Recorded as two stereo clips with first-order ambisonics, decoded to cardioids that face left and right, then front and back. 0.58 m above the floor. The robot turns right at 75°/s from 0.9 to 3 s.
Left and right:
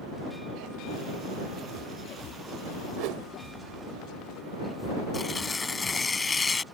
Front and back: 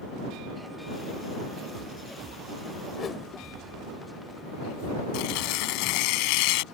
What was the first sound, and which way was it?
A whoosh, 70° right.